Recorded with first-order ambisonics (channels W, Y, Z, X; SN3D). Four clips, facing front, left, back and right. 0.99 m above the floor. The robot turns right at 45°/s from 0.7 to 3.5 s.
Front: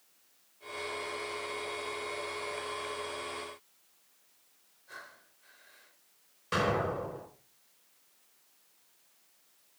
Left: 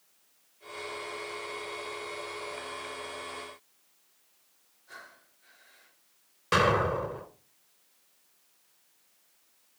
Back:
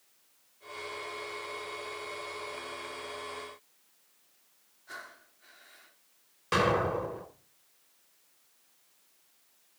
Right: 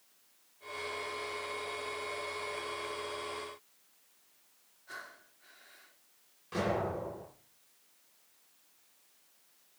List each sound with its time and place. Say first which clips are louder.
4.9 s breathing: right 2 dB, back 3 dB; 150° right, 3 m
6.5 s an explosion: left 9 dB, back 3 dB; 120° left, 3 m